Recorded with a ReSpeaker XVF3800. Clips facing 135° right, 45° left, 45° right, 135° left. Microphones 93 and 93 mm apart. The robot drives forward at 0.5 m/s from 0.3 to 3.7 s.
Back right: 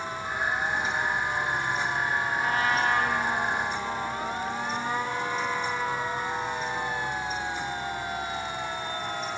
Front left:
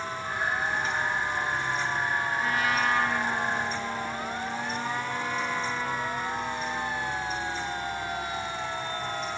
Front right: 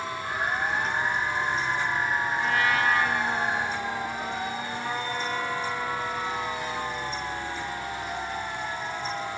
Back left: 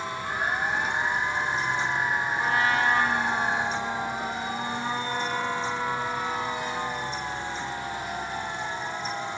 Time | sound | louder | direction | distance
2.4 | a trumpet | back right 2 dB, back left 1 dB | 175° right | 2 m